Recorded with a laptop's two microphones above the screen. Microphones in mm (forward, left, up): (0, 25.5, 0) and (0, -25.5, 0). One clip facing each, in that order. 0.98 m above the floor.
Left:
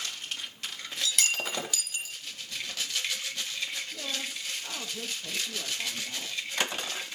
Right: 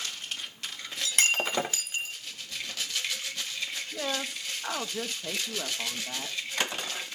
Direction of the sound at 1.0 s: 30° right (ahead or behind).